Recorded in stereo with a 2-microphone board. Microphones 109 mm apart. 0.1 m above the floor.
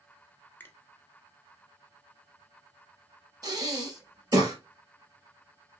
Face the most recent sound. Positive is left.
turn(degrees=-35)  # may be behind; listen again after turning